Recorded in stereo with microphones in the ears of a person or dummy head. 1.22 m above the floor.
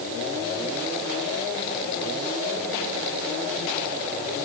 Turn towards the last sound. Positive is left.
No sound to turn to.